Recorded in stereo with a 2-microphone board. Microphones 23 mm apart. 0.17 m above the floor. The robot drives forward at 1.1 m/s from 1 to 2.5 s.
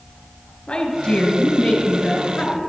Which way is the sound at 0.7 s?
50° left (ahead or behind).